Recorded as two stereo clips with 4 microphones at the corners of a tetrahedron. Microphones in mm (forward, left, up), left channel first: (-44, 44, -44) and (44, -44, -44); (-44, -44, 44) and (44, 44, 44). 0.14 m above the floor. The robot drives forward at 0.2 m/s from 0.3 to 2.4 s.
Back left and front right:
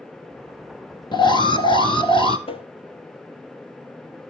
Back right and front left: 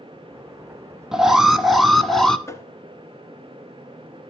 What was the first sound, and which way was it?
An alarm, 130° left.